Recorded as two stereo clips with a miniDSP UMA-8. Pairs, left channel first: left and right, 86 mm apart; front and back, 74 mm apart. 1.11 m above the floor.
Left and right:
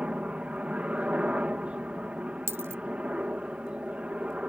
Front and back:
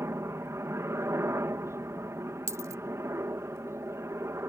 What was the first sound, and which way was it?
A helicopter, 160° right.